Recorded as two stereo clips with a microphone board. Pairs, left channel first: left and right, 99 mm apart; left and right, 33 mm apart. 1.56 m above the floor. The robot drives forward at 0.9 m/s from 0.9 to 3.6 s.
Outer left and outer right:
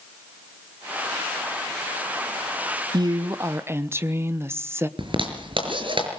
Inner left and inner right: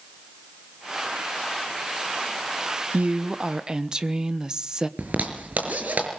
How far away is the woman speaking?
About 0.6 m.